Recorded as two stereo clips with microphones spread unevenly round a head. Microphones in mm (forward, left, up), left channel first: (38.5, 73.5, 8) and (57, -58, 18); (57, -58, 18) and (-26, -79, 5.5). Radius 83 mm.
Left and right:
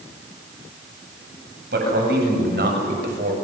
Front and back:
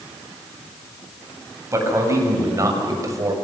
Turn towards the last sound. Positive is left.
turn(degrees=-115)